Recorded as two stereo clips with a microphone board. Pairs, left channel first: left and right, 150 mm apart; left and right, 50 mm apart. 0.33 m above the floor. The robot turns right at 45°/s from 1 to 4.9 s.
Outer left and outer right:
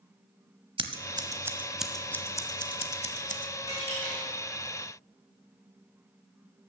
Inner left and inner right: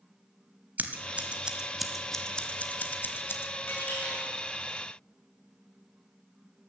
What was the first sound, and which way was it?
Scissors, 35° right (ahead or behind).